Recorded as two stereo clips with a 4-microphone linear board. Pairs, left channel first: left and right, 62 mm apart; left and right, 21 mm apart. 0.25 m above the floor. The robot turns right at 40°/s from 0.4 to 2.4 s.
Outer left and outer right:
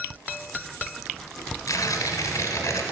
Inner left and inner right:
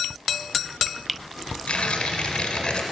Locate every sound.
1.7 s tearing paper: 70° left (ahead or behind), 0.9 m; by 2.8 s 60° left (ahead or behind), 0.9 m